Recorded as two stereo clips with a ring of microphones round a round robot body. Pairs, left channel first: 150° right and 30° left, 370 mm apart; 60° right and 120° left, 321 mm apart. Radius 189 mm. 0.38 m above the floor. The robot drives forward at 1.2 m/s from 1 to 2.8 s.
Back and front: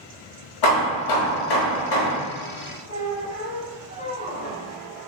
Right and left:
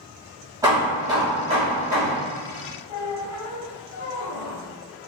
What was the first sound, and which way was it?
Hammering, 160° right.